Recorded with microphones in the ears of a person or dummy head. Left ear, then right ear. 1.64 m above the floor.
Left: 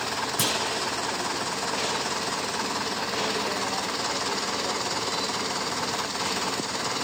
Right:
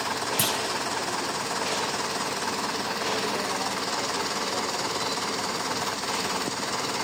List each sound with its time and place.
0.4 s a clunk: centre (ahead or behind), 0.7 m